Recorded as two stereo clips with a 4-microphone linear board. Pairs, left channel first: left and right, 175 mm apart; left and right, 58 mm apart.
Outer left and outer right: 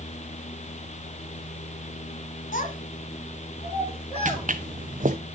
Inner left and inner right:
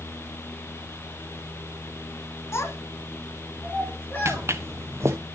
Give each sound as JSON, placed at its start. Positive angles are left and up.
{"t": 2.5, "sound": "a child speaking", "side_deg": 50, "distance_m": 1.5}
{"t": 4.2, "sound": "footsteps", "side_deg": -45, "distance_m": 0.9}